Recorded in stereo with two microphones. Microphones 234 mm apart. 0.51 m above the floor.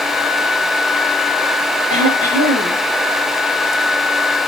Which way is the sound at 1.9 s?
30° right (ahead or behind).